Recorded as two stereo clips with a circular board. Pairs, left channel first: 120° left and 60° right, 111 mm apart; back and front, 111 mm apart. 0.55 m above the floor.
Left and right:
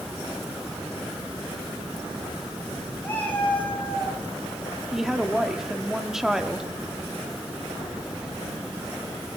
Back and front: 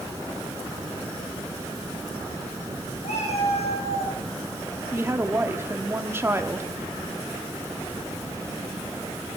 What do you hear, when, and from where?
3.0 s a cat meowing: 170° right, 4.5 m; by 4.2 s 155° right, 3.5 m
4.9 s a woman speaking: 20° left, 1.3 m